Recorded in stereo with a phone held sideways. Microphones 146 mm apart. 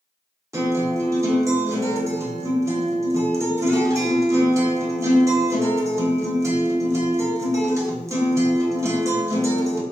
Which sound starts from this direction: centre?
A guitar, at 0.5 s.